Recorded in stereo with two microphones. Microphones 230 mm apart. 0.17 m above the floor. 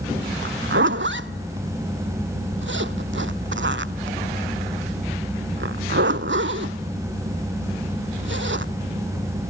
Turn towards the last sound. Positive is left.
turn(degrees=-55)  # may be behind; listen again after turning